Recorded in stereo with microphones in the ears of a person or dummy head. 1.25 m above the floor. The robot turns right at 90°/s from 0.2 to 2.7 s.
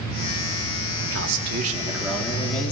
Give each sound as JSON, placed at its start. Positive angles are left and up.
{"t": 1.0, "sound": "a man speaking", "azimuth_deg": -100, "distance_m": 3.0}